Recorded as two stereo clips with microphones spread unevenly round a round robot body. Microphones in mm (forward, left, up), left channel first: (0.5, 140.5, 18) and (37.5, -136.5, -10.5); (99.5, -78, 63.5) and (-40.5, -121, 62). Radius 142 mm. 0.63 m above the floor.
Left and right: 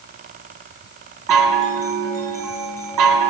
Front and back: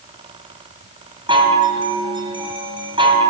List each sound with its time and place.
1.3 s a chime: 105° right, 3 m